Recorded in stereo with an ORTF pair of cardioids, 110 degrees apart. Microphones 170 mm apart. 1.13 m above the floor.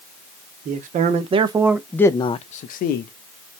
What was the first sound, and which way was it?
A man speaking, 55° right.